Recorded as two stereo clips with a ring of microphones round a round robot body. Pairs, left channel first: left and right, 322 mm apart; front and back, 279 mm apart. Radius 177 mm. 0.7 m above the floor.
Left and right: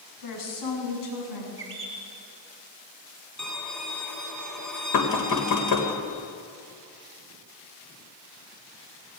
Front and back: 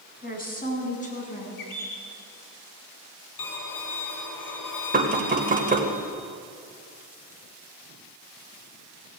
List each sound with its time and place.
0.2 s a woman speaking: 60° left, 7 m; by 1.5 s 65° left, 7.5 m
1.6 s a bird: 35° right, 3.5 m
3.4 s a violin: straight ahead, 3.5 m
4.9 s knocking: 120° left, 3 m